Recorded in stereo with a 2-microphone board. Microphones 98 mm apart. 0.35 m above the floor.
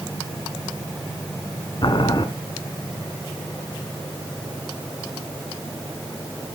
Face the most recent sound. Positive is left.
turn(degrees=50)  # may be behind; listen again after turning